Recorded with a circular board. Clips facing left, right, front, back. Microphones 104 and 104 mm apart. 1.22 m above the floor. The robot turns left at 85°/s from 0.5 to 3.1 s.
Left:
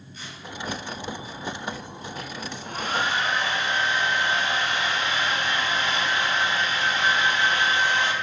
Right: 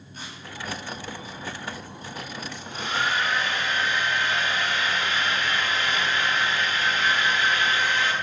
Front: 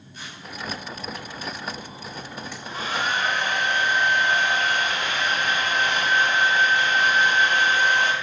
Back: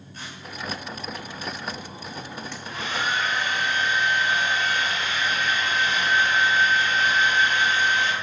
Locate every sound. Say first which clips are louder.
0.1 s tearing paper: right 2 dB, back 1 dB; 135° right, 9 m
2.5 s a hair dryer: left 2 dB, front 2 dB; 75° left, 3 m; by 8.1 s 25° left, 3 m